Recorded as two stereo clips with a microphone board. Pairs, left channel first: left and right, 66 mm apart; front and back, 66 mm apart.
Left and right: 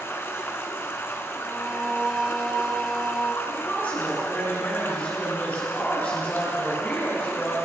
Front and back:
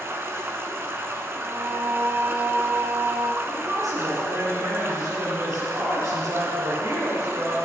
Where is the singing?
Straight behind, 0.9 m.